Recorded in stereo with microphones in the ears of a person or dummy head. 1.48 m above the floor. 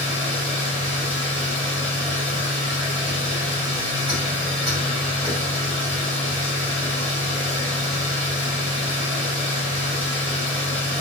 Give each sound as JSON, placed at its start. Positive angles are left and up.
{"t": 0.0, "sound": "a machine running", "side_deg": -20, "distance_m": 1.8}